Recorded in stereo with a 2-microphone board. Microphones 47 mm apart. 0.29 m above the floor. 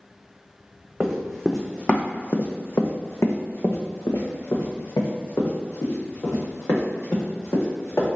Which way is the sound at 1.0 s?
5° right (ahead or behind).